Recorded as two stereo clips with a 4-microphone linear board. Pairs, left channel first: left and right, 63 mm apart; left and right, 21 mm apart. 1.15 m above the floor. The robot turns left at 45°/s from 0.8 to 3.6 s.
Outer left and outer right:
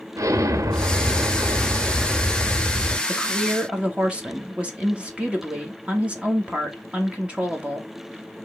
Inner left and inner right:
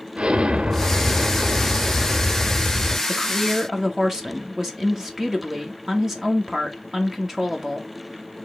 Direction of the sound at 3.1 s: 5° left (ahead or behind).